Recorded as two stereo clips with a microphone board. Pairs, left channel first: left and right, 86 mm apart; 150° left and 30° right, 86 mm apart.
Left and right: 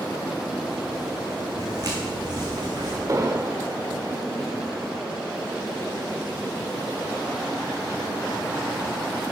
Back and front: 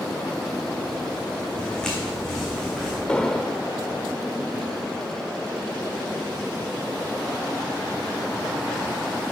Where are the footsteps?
130° right, 3 m; by 3.0 s 120° right, 3.5 m.